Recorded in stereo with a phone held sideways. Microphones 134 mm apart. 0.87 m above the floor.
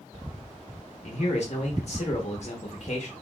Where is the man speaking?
55° left (ahead or behind), 0.9 m.